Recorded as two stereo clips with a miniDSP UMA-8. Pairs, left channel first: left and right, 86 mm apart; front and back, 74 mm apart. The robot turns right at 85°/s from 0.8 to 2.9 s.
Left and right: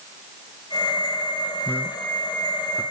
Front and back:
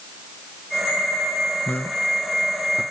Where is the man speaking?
40° left, 1.4 m; by 2.8 s 135° left, 1.4 m.